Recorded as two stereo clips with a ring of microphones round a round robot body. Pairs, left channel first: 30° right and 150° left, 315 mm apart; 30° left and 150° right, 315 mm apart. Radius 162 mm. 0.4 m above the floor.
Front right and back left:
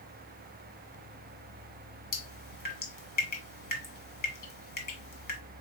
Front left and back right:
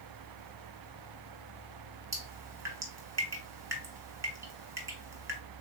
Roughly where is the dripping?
Right.